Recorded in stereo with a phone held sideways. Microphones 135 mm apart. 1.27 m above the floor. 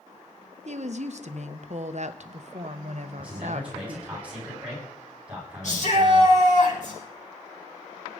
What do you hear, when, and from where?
0.7 s a woman speaking: 55° right (ahead or behind), 1.0 m
3.2 s a man speaking: 10° right (ahead or behind), 9.5 m
5.6 s a shout: 60° left (ahead or behind), 6.5 m